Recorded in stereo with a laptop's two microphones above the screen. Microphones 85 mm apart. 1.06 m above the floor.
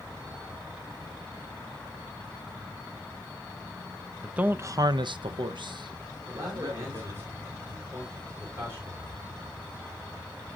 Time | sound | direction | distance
4.2 | a man speaking | 10° right (ahead or behind) | 0.9 m
6.3 | a man speaking | 30° right (ahead or behind) | 4.5 m